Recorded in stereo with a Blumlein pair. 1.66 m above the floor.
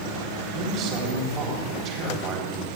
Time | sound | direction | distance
0.5 | a man speaking | 35° right | 4 m